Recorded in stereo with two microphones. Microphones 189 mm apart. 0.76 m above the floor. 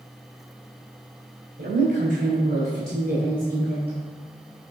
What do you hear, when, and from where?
1.6 s a woman speaking: 75° right (ahead or behind), 3.5 m; by 4.0 s 65° right (ahead or behind), 4 m